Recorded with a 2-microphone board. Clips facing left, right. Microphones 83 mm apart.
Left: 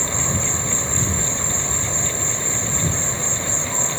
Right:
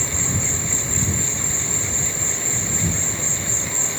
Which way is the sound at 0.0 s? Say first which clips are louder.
Left 2 dB; 40° left (ahead or behind).